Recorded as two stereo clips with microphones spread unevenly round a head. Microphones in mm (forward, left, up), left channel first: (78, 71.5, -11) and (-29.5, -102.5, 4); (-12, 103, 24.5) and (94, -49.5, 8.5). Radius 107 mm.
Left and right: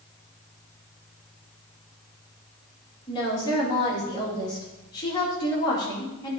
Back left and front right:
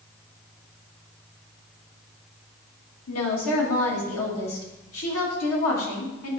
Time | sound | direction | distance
3.1 | a woman speaking | 130° left | 2.5 m